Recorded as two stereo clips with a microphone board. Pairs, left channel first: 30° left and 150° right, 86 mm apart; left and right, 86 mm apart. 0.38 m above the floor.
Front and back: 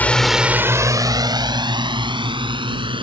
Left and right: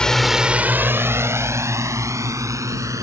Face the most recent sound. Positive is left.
turn(degrees=-140)